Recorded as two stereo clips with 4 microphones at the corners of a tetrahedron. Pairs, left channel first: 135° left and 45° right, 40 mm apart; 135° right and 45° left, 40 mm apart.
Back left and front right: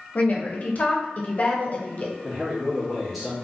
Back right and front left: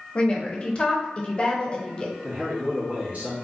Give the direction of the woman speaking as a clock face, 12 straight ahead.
6 o'clock.